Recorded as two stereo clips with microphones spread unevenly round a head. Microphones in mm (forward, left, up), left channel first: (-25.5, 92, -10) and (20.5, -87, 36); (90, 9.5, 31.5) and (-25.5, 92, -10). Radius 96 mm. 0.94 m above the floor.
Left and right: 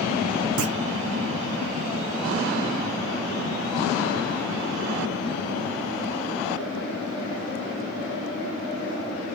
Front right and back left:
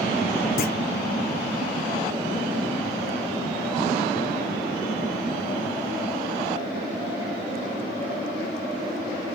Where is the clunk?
75° right.